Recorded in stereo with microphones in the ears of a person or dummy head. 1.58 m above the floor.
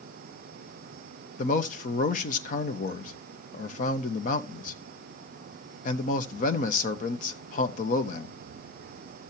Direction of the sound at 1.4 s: 45° left (ahead or behind).